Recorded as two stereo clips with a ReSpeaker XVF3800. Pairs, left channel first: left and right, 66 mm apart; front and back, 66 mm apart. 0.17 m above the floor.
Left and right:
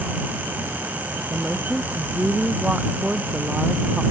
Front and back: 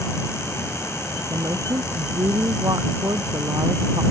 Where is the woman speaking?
165° right.